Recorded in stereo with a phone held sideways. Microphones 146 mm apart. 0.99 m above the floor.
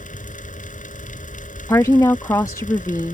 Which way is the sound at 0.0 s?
60° left (ahead or behind).